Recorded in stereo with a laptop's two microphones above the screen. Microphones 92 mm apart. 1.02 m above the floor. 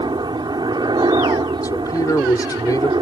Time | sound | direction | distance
0.0 | a helicopter | 55° right (ahead or behind) | ?
1.6 | a man speaking | 45° left (ahead or behind) | ?